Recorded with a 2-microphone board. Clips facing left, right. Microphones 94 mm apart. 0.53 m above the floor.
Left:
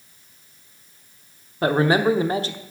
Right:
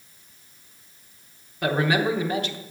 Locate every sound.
1.6 s a man speaking: 35° left (ahead or behind), 1.0 m